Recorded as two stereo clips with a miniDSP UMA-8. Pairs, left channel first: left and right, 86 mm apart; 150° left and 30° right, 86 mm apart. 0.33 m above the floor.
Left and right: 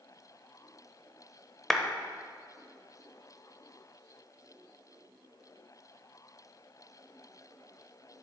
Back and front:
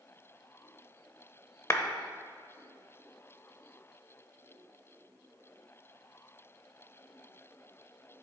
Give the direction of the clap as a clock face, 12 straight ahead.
6 o'clock.